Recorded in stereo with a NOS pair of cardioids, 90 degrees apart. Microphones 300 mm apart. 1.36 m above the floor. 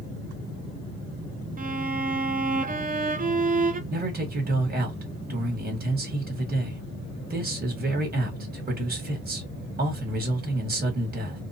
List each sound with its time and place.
1.6 s a violin: 30° right, 0.7 m
3.9 s a man speaking: 30° right, 1.7 m